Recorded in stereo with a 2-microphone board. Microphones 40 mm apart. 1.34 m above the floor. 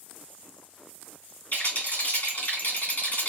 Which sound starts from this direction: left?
A rattle, at 1.5 s.